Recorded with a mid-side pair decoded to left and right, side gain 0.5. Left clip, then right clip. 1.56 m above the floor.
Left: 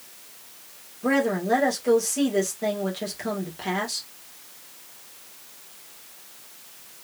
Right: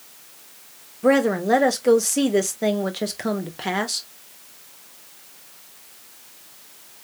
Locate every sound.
1.0 s a woman speaking: 45° right, 1.4 m